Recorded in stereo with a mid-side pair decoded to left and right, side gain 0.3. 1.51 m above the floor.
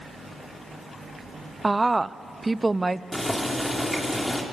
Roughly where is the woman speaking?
Ahead right.